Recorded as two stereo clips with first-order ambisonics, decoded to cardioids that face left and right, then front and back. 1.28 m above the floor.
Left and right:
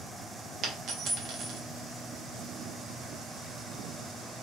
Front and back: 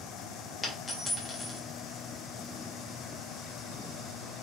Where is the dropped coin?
70° right, 0.7 m.